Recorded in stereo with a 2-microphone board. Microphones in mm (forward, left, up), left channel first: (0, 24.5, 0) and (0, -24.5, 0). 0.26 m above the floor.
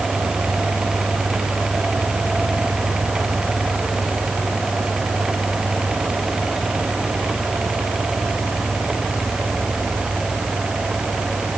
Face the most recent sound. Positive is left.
No sound to turn to.